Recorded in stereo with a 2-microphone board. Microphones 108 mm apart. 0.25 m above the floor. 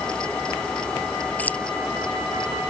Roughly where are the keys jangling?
Centre.